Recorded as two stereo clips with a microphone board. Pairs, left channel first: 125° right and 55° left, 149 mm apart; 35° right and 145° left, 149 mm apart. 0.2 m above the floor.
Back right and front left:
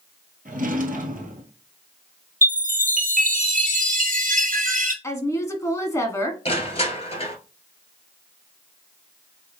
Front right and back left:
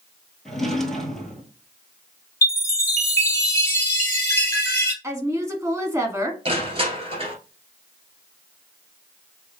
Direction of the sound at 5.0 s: 170° right.